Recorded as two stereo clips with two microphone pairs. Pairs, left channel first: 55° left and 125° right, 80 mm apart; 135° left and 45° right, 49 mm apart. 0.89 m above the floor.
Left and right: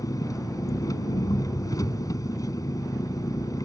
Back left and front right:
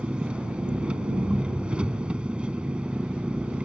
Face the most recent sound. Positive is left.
turn(degrees=20)